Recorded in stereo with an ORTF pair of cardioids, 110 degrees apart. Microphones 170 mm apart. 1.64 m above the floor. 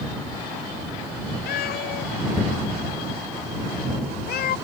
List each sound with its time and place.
1.5 s a cat meowing: 65° left